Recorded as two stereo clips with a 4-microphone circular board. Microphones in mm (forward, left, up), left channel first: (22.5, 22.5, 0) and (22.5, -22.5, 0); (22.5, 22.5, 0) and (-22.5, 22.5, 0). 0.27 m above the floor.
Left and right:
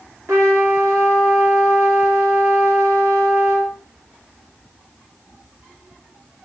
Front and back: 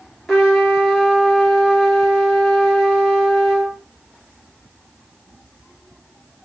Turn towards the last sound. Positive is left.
turn(degrees=-80)